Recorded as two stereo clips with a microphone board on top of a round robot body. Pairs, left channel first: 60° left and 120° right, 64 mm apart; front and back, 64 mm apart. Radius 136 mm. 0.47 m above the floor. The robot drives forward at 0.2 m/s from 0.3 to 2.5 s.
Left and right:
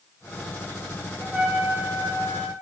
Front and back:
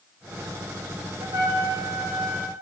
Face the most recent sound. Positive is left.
turn(degrees=170)